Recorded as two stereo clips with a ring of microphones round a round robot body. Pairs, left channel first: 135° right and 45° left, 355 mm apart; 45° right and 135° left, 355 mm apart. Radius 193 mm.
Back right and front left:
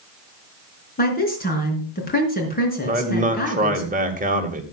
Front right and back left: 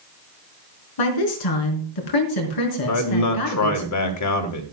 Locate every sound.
1.0 s a woman speaking: 70° right, 5 m
2.8 s a man speaking: 20° right, 2.5 m